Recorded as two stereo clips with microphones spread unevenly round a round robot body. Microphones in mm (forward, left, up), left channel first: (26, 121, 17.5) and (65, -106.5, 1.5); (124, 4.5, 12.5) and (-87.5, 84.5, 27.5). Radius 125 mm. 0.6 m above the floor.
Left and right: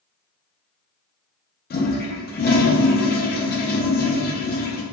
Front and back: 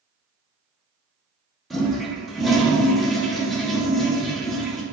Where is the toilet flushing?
65° left, 0.6 m.